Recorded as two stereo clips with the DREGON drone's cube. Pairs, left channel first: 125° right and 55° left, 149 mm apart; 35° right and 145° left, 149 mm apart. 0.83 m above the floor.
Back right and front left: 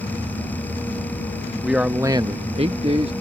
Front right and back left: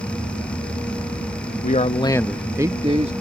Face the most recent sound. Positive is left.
turn(degrees=105)